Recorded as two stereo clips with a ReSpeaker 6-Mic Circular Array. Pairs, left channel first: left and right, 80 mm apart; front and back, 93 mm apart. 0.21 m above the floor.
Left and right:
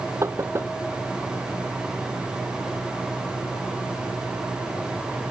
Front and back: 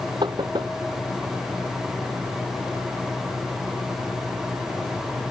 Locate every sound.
0.2 s knocking: 145° right